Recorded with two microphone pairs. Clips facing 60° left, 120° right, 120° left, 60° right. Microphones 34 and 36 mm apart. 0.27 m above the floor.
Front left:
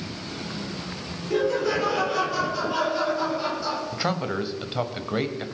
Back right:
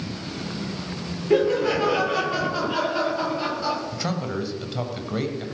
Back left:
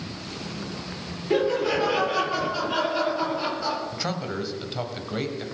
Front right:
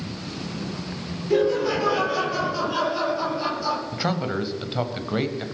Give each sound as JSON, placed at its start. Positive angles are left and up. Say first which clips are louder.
{"t": 1.3, "sound": "laughter", "louder": "back right 3 dB, front right 2 dB", "azimuth_deg": -170, "distance_m": 6.5}
{"t": 3.9, "sound": "a man speaking", "louder": "front left 1 dB, front right 4 dB", "azimuth_deg": 5, "distance_m": 1.4}